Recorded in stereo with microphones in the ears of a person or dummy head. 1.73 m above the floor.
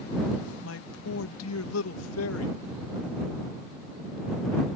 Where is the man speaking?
85° left.